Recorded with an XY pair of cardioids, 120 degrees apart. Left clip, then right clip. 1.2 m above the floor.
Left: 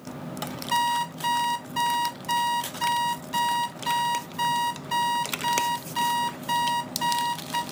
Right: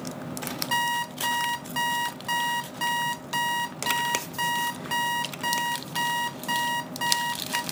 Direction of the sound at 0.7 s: 60° right.